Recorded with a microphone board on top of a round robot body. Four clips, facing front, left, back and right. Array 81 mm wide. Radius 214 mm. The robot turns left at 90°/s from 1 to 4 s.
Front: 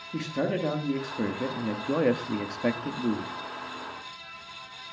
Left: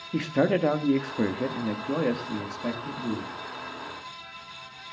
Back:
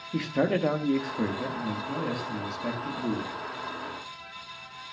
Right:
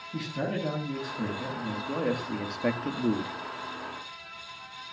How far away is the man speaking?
About 1.5 m.